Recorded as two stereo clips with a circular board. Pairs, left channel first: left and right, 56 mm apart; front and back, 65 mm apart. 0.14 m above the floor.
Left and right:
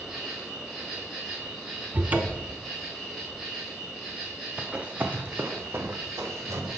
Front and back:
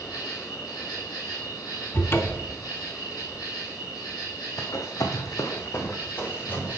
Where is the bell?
I don't hear a bell.